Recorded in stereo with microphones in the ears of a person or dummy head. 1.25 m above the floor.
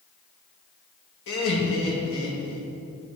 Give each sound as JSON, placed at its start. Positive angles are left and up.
{"t": 1.3, "sound": "laughter", "side_deg": 70, "distance_m": 2.0}